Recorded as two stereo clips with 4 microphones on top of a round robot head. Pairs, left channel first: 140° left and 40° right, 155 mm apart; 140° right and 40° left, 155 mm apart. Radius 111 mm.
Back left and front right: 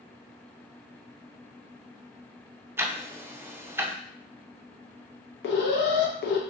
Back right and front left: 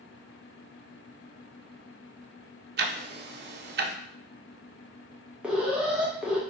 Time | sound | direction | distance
2.8 | ticking | 40° left | 0.6 m
5.4 | an alarm | 120° left | 0.7 m